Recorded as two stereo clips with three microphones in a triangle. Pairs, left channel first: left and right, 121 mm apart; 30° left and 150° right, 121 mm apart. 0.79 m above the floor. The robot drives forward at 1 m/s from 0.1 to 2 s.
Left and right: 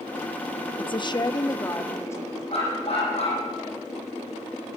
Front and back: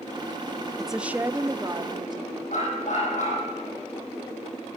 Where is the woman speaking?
115° left, 1.0 m; by 2.4 s 160° left, 1.8 m.